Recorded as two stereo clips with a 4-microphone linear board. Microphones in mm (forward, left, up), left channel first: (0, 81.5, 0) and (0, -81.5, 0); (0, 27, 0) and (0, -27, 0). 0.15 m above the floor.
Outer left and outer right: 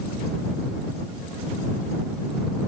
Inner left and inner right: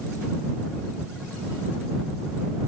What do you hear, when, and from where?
Only background noise.